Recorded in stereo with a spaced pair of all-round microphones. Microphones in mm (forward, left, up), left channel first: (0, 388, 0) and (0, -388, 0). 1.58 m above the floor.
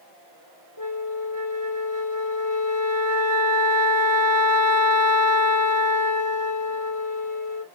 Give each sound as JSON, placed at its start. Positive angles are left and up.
{"t": 0.8, "sound": "a flute", "side_deg": 40, "distance_m": 1.8}